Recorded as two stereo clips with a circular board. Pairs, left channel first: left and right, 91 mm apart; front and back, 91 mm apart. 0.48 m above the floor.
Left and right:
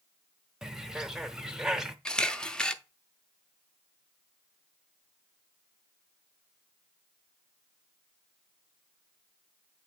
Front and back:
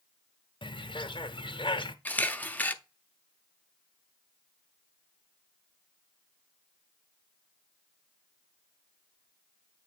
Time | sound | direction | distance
0.6 | a bird | 5° right | 0.6 m
2.0 | a camera shutter | 25° left | 0.6 m